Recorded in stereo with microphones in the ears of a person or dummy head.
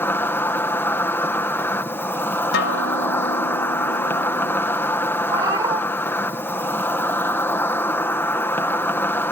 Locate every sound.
0.0 s an insect: 15° left (ahead or behind)
2.5 s a guitar: 70° left (ahead or behind)
5.3 s a cat meowing: 25° right (ahead or behind)